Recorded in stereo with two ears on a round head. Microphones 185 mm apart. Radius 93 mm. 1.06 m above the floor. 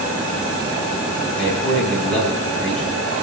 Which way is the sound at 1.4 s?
5° left (ahead or behind).